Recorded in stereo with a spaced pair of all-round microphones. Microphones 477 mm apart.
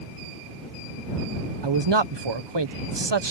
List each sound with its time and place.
1.6 s a man speaking: 60° right (ahead or behind)